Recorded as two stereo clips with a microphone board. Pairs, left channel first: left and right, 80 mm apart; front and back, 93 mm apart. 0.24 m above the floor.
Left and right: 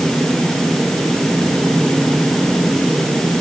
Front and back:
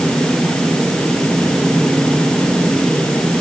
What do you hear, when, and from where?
Only background noise.